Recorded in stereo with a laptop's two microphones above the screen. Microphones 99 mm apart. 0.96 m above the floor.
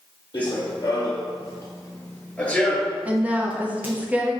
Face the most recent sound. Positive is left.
turn(degrees=-15)  # may be behind; listen again after turning